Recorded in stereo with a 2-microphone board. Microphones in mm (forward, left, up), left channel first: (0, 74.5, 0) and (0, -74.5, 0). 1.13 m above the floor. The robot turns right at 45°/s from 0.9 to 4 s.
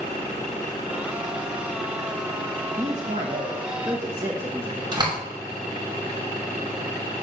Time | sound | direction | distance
2.8 | a man speaking | 70° right | 1.4 m
4.9 | a door slam | 30° right (ahead or behind) | 2.5 m